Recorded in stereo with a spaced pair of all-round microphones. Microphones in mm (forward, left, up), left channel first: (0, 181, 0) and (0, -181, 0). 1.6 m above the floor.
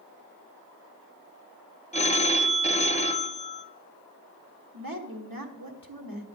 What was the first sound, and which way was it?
A phone ringing, 20° left (ahead or behind).